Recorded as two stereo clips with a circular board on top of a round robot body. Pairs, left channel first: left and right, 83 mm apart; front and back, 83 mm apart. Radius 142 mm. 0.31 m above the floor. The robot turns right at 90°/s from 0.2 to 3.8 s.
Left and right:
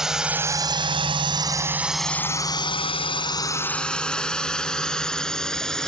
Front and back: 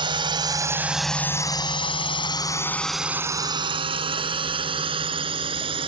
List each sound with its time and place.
0.0 s a drone: 175° right; by 5.9 s 175° left